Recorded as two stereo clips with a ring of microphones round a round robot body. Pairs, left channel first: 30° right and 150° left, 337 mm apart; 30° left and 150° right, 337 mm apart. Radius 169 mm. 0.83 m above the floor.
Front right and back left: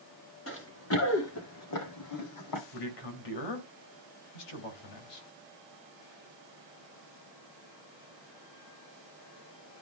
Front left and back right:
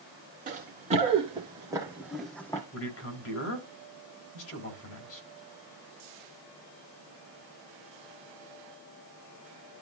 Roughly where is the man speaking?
Ahead.